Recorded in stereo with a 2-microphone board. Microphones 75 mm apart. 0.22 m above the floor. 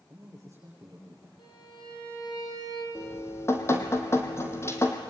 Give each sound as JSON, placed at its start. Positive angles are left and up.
{"t": 0.1, "sound": "a man speaking", "side_deg": -45, "distance_m": 9.5}
{"t": 1.4, "sound": "a violin", "side_deg": 75, "distance_m": 9.0}
{"t": 3.0, "sound": "dripping", "side_deg": 35, "distance_m": 3.0}